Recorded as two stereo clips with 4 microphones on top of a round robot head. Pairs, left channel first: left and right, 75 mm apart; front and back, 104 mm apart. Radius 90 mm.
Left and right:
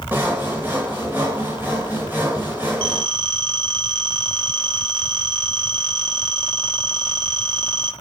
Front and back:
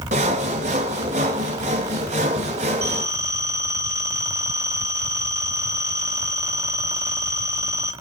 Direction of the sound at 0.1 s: 165° right.